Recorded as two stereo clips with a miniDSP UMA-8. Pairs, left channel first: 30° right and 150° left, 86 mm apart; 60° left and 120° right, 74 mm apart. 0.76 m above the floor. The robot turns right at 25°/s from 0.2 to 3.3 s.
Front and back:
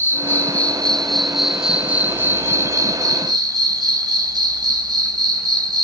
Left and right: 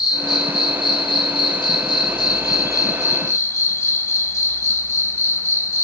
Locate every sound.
0.0 s an insect: 35° left, 0.9 m; by 5.8 s 115° left, 0.9 m